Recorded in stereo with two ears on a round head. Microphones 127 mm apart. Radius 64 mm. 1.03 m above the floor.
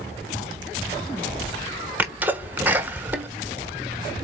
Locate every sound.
2.0 s a sneeze: 10° right (ahead or behind), 0.8 m